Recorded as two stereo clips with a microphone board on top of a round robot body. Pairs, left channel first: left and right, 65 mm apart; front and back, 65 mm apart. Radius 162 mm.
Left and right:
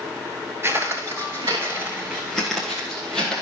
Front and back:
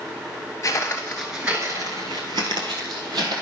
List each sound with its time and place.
0.6 s footsteps: 40° right, 0.8 m; by 3.4 s 170° left, 1.8 m